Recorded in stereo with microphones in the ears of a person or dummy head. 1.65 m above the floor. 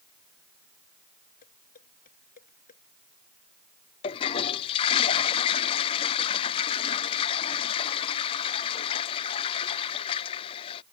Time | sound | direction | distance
1.4 | dishes clattering | 45° left (ahead or behind) | ?
4.0 | a toilet flushing | 25° left (ahead or behind) | ?